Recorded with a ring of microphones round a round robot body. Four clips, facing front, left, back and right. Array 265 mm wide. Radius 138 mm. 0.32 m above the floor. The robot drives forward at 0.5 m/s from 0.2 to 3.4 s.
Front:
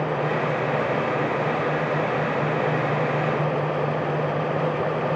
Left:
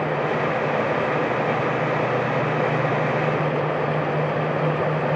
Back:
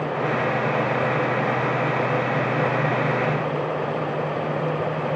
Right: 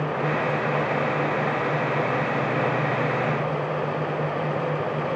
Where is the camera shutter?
I don't hear a camera shutter.